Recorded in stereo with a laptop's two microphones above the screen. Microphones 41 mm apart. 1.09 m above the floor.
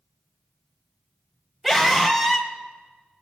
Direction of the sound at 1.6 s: Centre (ahead or behind).